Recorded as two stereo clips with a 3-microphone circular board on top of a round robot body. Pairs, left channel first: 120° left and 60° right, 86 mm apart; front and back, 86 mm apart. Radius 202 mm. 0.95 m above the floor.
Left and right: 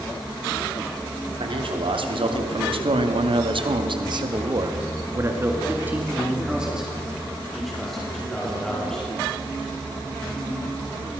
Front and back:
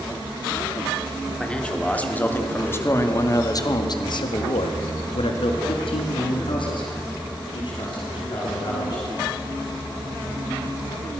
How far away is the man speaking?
About 3.5 m.